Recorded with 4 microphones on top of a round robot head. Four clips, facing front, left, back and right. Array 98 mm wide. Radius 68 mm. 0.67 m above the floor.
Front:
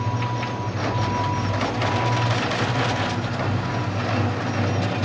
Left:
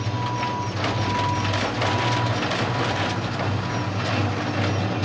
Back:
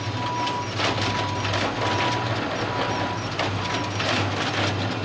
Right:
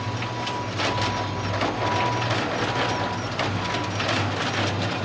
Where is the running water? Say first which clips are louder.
Left 3 dB, even; 20° left, 2 m.